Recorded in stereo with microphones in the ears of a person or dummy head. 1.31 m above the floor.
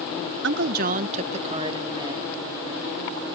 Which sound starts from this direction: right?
A woman speaking, at 0.4 s.